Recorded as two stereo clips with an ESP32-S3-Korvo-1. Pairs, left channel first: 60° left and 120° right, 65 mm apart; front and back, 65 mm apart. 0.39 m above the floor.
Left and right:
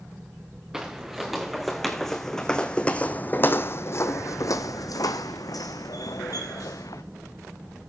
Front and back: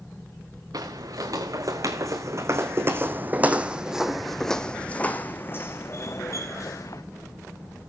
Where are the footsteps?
155° left, 2 m; by 7.0 s 35° left, 1.9 m.